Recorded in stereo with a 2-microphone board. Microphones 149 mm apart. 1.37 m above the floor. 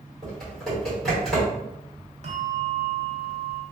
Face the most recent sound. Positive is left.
turn(degrees=-50)  # may be behind; listen again after turning